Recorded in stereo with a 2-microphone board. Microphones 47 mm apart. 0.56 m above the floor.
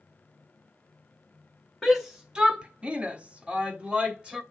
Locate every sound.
1.8 s a shout: 10° right (ahead or behind), 1.1 m; by 4.4 s 20° right (ahead or behind), 2.5 m